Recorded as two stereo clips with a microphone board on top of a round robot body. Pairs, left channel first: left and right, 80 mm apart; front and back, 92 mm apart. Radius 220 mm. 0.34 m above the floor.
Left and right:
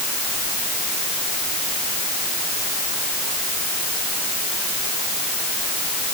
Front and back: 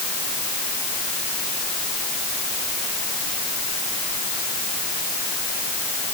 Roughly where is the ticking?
No ticking in this recording.